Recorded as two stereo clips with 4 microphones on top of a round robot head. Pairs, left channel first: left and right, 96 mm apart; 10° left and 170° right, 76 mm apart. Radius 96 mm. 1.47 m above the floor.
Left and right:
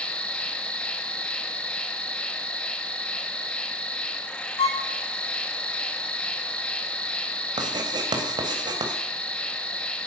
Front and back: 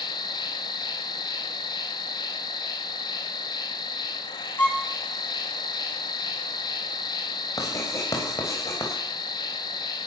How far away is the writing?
About 3.5 m.